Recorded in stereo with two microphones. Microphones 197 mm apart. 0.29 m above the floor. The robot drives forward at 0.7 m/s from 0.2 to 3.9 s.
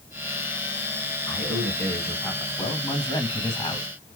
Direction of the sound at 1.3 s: 15° left (ahead or behind).